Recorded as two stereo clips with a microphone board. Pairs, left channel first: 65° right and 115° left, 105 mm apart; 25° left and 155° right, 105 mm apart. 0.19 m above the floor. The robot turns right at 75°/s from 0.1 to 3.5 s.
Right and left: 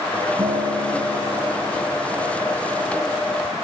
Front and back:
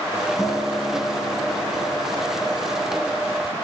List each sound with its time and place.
0.4 s a guitar: 110° left, 1.0 m; by 2.8 s 70° right, 1.0 m